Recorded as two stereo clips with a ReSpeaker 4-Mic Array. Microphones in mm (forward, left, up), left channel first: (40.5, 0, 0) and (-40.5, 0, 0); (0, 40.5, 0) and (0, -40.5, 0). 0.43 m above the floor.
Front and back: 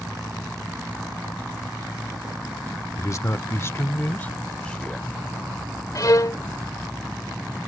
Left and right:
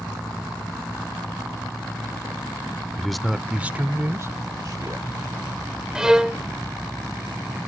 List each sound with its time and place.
3.0 s a man speaking: 10° left; by 5.2 s 80° right
6.0 s a violin: 10° right